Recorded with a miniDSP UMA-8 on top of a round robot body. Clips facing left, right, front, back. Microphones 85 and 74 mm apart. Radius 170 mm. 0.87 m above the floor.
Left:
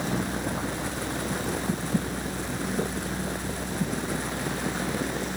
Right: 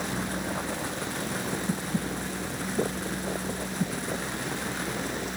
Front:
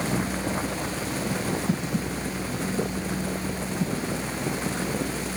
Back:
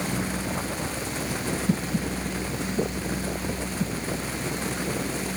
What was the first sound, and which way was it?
Only background noise.